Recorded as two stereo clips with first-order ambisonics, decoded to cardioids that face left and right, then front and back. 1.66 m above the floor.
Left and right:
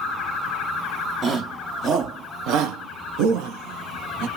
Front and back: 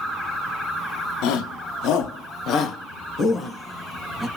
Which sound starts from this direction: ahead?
A shout, at 1.2 s.